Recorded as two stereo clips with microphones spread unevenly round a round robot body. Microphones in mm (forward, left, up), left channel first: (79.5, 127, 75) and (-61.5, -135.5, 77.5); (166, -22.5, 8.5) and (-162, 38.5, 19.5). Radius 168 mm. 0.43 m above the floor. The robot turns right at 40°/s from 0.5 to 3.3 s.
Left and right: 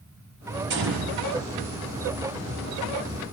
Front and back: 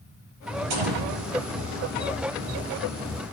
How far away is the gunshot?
About 6.5 m.